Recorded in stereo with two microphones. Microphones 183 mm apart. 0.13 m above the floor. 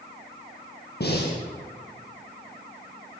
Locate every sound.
1.0 s breathing: 60° left (ahead or behind), 5.5 m